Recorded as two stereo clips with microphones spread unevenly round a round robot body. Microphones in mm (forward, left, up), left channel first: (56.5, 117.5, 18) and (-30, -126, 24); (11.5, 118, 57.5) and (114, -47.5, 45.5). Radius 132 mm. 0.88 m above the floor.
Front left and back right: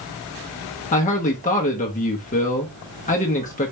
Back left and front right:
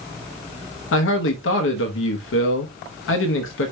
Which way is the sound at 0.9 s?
130° left.